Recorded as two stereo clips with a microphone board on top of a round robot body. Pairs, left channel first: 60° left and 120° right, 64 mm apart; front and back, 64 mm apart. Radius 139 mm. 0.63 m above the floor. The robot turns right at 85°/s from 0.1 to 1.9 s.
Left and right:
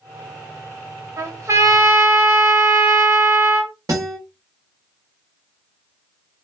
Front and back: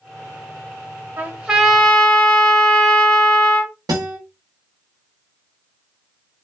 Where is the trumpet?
135° right, 1.6 m; by 3.7 s 75° right, 1.6 m.